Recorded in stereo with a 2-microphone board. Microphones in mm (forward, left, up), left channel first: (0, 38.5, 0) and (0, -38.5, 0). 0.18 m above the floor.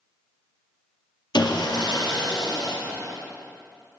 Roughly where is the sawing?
Left.